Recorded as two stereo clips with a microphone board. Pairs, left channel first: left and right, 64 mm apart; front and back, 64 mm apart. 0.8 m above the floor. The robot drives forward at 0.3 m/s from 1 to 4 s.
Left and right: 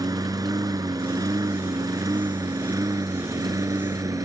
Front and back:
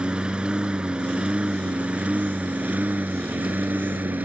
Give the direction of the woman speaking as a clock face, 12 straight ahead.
No woman speaking in this recording.